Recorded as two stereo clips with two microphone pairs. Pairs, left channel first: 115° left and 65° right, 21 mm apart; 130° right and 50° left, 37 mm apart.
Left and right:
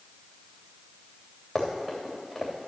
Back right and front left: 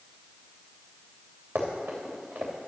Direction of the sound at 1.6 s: 20° left.